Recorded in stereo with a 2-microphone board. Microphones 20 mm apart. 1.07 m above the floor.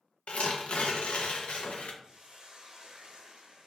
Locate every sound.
0.3 s tearing paper: 60° left (ahead or behind), 0.5 m
2.0 s a hiss: 40° right (ahead or behind), 0.6 m